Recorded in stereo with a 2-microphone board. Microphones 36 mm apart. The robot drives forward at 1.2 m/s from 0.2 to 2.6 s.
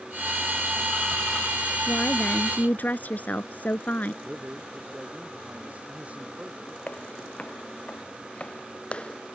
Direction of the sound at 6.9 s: 50° left (ahead or behind).